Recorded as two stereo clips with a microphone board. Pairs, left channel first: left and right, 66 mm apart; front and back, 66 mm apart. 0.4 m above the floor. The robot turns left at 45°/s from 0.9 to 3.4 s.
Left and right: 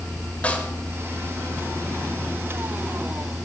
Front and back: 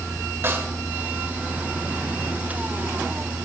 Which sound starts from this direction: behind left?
A snare drum, at 0.4 s.